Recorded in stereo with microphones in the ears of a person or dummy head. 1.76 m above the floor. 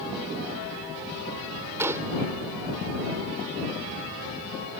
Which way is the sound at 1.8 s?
15° right (ahead or behind).